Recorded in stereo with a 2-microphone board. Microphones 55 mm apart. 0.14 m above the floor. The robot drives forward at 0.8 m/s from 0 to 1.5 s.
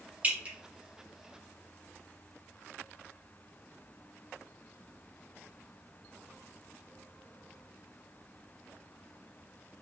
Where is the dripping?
25° right (ahead or behind), 1.2 m.